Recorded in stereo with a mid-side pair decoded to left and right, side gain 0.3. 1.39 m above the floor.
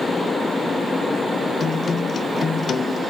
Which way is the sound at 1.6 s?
65° left.